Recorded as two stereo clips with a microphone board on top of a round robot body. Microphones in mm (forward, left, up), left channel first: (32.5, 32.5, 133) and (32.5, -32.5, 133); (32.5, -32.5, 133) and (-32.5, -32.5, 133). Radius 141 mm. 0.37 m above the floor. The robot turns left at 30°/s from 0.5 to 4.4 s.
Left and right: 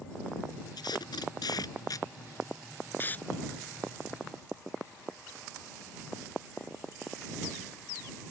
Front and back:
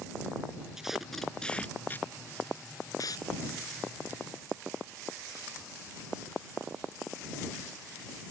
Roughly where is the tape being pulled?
Left.